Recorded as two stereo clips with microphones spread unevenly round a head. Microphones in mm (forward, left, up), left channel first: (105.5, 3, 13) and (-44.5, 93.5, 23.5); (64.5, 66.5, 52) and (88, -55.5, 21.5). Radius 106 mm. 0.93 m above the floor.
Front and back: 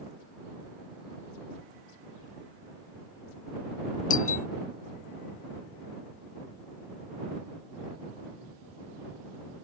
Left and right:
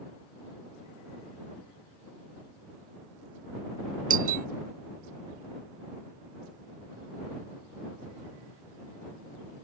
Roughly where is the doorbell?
Right.